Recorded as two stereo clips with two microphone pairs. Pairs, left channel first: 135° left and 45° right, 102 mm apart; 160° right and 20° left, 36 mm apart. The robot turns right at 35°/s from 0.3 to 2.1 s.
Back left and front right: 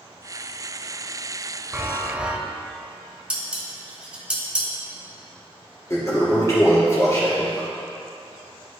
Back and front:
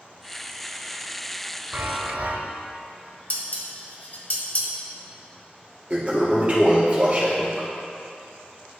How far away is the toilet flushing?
About 2.5 m.